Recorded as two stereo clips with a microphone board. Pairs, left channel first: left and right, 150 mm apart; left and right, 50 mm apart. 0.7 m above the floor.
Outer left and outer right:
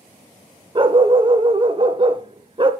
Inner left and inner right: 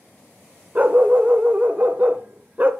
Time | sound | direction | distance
0.8 | a dog barking | 35° right (ahead or behind) | 0.5 m